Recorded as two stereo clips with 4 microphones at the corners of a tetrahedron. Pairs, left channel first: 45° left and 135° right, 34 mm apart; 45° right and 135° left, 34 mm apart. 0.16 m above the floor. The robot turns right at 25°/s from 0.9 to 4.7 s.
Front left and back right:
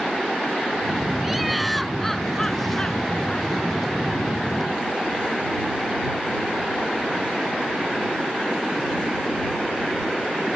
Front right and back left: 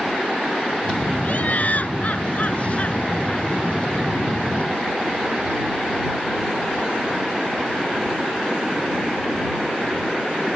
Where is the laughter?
55° right; by 3.5 s straight ahead.